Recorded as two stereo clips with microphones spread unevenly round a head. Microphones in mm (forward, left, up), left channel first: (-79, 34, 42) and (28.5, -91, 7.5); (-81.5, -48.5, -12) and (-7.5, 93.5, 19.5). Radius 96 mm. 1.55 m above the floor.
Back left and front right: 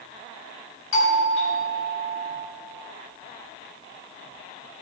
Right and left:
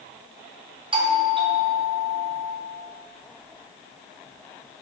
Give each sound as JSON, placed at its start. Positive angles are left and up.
{"t": 0.9, "sound": "a doorbell", "azimuth_deg": 125, "distance_m": 2.5}